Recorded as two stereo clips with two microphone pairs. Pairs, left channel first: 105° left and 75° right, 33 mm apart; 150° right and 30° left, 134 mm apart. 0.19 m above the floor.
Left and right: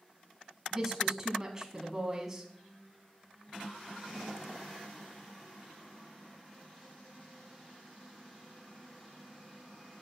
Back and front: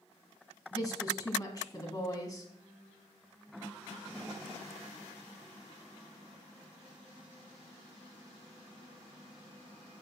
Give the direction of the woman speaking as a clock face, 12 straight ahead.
5 o'clock.